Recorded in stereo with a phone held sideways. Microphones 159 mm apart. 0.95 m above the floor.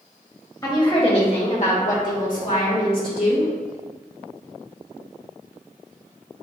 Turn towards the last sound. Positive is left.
turn(degrees=75)  # may be behind; listen again after turning